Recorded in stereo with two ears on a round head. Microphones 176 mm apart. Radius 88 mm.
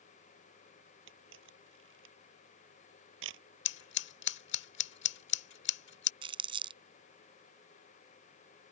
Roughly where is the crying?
No crying in this recording.